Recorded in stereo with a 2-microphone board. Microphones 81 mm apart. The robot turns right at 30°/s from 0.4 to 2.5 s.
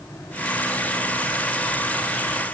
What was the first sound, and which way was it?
Only background noise.